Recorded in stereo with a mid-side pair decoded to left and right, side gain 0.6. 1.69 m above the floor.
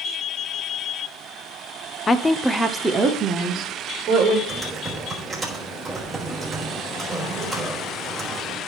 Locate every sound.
2.1 s a woman speaking: 30° left, 0.7 m; by 4.4 s 50° right, 2 m
4.5 s typing on a keyboard: 15° right, 3.5 m